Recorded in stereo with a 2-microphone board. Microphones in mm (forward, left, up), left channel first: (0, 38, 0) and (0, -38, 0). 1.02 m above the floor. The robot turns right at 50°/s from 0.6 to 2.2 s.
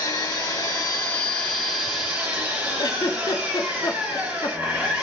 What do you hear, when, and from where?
0.0 s an engine running: 120° left, 2 m; by 5.0 s 160° right, 2 m
2.8 s a giggle: 50° left (ahead or behind), 0.5 m